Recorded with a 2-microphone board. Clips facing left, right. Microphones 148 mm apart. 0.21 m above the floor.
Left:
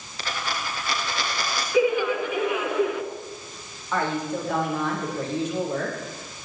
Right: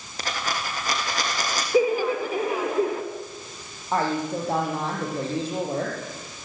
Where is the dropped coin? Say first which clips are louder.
Right 1 dB; 40° right (ahead or behind), 5 m.